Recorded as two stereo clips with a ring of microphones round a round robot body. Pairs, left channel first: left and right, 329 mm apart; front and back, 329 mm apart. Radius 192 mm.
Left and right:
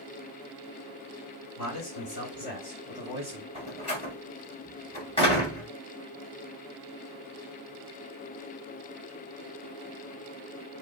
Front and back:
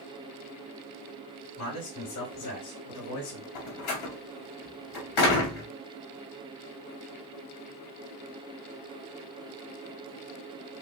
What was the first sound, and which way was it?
A man speaking, 50° left.